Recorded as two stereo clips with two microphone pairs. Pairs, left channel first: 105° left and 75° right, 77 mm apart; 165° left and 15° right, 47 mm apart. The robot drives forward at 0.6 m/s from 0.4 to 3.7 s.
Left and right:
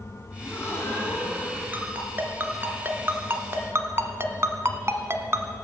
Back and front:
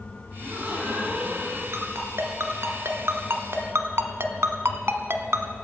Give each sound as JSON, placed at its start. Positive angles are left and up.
{"t": 0.4, "sound": "a gasp", "azimuth_deg": 35, "distance_m": 5.0}
{"t": 1.7, "sound": "a ringtone", "azimuth_deg": -10, "distance_m": 2.5}